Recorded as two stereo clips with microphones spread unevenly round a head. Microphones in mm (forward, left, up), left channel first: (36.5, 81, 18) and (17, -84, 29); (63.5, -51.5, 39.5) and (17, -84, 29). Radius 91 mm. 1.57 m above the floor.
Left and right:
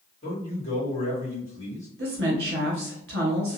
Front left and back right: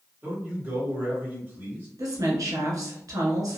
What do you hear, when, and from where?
0.2 s a man speaking: 150° left, 1.5 m
2.0 s a woman speaking: 135° right, 1.4 m